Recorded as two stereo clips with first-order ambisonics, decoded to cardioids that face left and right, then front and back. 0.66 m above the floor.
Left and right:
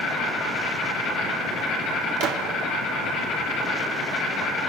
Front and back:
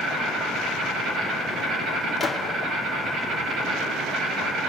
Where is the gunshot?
75° right, 1.2 m.